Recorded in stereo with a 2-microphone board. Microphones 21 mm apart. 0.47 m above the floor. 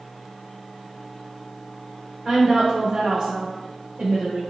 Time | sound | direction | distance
2.2 | a woman speaking | 25° right (ahead or behind) | 0.9 m